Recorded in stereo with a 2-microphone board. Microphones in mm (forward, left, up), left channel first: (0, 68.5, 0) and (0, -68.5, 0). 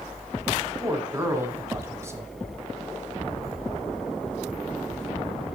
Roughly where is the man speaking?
Right.